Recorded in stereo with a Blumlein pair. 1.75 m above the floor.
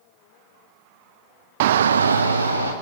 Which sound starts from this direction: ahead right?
A shout, at 1.6 s.